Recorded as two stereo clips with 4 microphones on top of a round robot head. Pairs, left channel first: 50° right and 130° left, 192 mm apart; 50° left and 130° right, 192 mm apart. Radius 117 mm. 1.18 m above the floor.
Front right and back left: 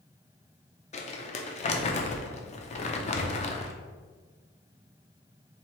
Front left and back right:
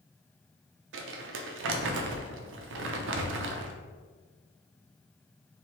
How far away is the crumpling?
About 0.5 m.